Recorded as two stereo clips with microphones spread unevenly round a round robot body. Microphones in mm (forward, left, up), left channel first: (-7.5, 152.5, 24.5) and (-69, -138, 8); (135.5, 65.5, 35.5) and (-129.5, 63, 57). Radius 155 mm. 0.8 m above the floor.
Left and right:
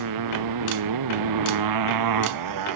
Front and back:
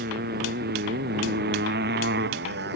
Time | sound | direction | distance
0.0 | a motorcycle | 120° right | ?